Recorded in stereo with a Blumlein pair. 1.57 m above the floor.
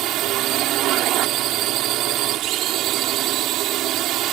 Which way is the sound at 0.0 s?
35° right.